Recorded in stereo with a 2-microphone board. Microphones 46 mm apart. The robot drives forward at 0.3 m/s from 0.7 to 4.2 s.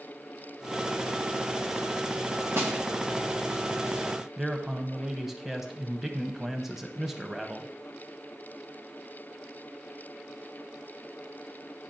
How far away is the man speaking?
About 0.7 m.